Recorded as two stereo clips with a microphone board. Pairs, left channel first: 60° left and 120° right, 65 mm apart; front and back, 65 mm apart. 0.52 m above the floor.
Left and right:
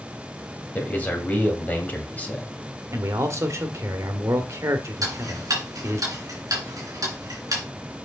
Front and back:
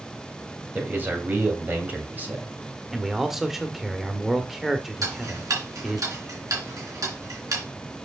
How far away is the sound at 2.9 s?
About 1.4 m.